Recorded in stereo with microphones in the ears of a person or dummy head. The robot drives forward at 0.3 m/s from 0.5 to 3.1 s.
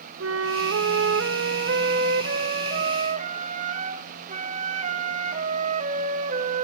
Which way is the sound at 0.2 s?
90° right.